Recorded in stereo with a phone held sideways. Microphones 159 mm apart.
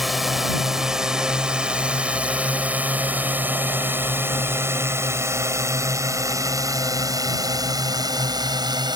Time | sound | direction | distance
0.0 | a drone | centre (ahead or behind) | ?